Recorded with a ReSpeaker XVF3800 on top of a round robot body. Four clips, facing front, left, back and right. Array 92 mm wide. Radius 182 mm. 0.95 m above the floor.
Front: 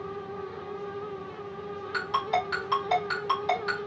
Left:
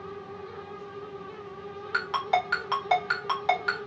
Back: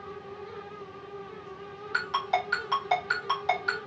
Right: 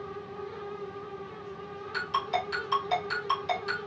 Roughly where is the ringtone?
Left.